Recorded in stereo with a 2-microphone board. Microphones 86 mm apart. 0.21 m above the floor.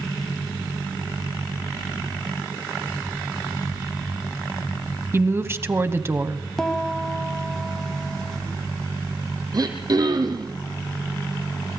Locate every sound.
5.1 s a woman speaking: 30° right (ahead or behind), 1.2 m
6.6 s a piano: 5° left (ahead or behind), 1.1 m
9.5 s throat clearing: 50° right (ahead or behind), 2.5 m